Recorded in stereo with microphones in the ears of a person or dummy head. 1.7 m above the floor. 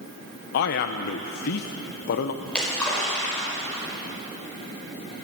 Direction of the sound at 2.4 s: 10° left (ahead or behind).